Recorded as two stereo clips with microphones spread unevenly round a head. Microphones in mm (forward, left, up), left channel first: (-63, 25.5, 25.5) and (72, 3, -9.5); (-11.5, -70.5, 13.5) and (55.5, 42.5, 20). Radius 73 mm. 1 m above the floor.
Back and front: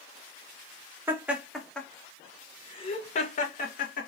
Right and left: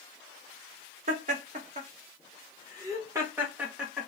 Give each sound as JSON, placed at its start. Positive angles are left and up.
{"t": 1.1, "sound": "laughter", "azimuth_deg": 55, "distance_m": 1.2}